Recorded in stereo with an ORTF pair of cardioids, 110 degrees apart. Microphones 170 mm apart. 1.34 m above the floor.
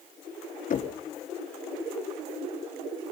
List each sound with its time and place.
0.7 s knocking: 50° left, 2.5 m